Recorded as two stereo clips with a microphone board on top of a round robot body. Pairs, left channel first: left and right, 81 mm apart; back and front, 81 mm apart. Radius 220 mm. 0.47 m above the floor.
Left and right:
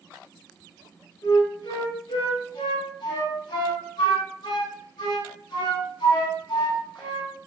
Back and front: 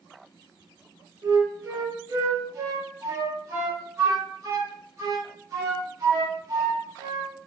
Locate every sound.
1.2 s a flute: 55° left, 0.7 m